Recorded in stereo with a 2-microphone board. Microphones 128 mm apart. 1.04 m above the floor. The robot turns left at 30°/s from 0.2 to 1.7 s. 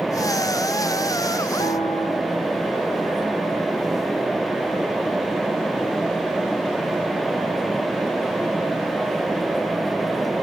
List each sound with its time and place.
1.6 s a piano: 50° left (ahead or behind), 3 m